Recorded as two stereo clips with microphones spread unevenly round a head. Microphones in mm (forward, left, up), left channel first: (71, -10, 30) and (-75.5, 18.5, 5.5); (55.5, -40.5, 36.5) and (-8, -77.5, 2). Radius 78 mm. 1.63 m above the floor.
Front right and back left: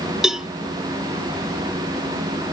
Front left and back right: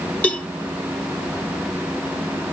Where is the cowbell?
75° left.